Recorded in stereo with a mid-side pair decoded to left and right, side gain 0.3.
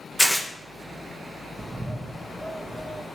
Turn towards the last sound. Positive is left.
turn(degrees=-15)